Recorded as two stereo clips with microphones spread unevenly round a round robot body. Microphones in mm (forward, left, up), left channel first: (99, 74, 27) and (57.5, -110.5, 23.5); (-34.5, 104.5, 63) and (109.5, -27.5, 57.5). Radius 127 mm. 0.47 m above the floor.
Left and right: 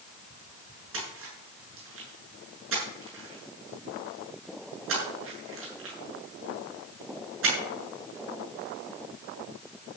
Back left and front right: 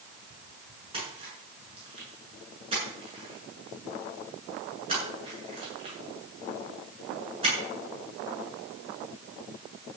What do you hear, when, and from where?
0.9 s a splash: 110° right, 7.5 m